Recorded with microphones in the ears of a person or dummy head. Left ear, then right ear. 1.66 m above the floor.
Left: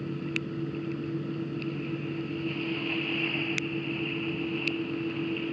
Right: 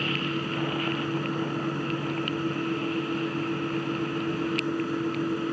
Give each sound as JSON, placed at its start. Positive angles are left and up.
{"t": 0.0, "sound": "a fan", "side_deg": -45}